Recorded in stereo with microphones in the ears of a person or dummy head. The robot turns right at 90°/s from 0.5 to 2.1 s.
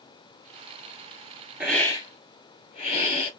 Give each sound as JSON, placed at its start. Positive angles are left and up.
{"t": 1.6, "sound": "a hiss", "azimuth_deg": -10, "distance_m": 2.0}